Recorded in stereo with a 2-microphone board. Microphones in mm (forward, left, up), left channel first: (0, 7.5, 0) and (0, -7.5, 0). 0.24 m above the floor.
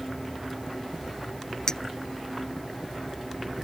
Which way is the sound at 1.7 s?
40° left (ahead or behind).